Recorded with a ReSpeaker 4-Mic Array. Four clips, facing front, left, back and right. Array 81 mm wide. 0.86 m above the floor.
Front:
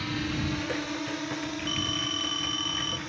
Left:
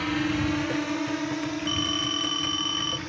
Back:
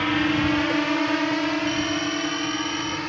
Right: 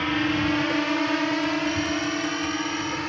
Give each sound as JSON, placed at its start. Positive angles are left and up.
{"t": 0.0, "sound": "a drone", "azimuth_deg": -155}
{"t": 1.7, "sound": "a phone ringing", "azimuth_deg": 85}